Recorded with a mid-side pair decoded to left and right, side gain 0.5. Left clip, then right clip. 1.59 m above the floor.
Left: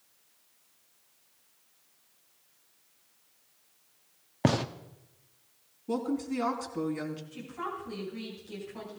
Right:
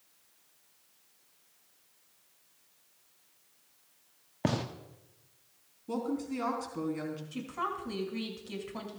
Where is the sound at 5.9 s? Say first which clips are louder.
Left 3 dB; 15° left, 4 m.